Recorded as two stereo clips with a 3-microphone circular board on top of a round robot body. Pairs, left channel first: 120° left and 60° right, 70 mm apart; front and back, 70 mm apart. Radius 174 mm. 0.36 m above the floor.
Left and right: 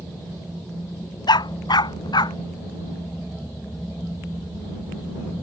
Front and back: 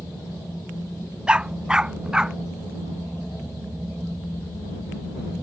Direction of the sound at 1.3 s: 100° left.